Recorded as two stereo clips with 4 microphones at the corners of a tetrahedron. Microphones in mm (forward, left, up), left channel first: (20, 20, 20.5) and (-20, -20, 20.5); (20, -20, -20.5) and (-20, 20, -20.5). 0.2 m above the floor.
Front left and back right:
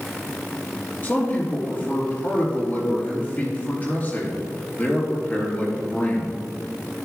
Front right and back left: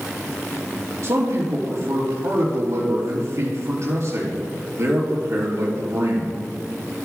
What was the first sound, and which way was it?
A man speaking, 100° left.